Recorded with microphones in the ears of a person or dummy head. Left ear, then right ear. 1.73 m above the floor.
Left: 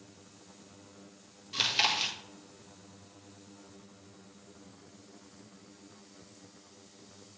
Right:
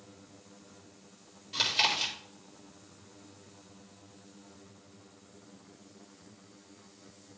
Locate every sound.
1.5 s chewing: centre (ahead or behind), 1.8 m